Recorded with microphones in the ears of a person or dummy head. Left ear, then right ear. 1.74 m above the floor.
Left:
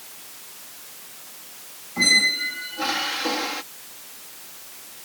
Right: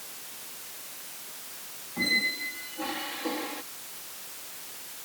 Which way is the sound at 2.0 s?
40° left (ahead or behind).